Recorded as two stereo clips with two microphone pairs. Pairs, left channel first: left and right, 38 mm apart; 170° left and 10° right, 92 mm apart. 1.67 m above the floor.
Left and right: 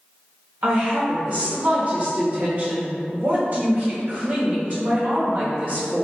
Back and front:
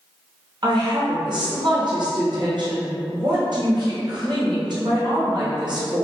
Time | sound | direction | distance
0.6 | a woman speaking | 40° right | 1.0 m